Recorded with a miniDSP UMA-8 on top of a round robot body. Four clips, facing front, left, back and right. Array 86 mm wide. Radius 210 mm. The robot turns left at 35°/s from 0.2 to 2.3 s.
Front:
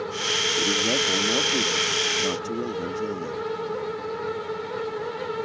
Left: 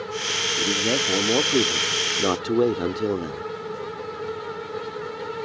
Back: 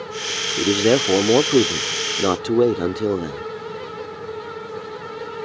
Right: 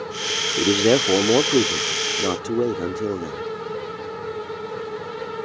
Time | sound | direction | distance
0.6 | a man speaking | 135° right | ?